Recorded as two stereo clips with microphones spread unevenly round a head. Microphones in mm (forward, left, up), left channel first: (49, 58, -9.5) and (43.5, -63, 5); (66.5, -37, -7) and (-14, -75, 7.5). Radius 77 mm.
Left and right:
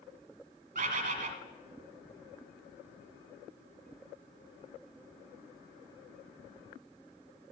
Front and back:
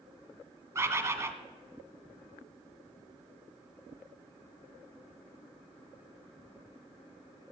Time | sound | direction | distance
0.8 | a bird | 100° right | 1.7 m